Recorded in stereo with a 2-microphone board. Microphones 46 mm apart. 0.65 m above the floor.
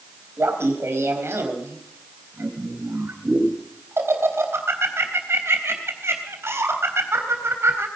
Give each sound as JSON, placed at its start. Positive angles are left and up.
{"t": 0.4, "sound": "laughter", "side_deg": -70, "distance_m": 3.5}